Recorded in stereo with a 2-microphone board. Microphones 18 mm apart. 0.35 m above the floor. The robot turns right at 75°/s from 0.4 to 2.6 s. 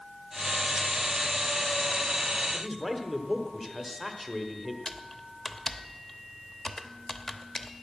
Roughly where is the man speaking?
Centre.